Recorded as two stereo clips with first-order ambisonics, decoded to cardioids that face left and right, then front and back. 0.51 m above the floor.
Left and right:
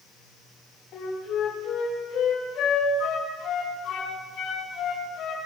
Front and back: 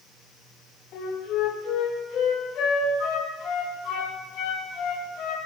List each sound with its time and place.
0.9 s a flute: 45° left, 7 m